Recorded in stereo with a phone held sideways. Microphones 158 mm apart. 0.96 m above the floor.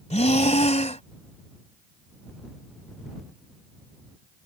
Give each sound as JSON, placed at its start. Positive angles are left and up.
{"t": 0.1, "sound": "breathing", "side_deg": 45}